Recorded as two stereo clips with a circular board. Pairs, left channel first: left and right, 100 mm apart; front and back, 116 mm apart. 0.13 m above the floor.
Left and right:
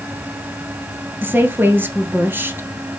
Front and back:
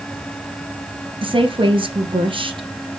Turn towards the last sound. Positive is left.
turn(degrees=-155)